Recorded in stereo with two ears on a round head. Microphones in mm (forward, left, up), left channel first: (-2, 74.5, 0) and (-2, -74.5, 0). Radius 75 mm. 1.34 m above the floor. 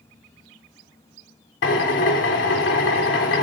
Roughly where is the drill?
Left.